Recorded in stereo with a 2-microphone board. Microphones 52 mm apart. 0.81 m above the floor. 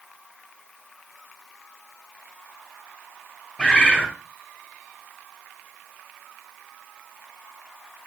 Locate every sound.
3.6 s a bird: 15° left (ahead or behind), 1.0 m